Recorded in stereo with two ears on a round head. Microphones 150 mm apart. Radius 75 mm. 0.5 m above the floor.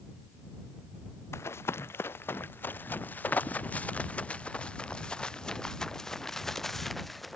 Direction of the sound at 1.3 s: 15° left (ahead or behind).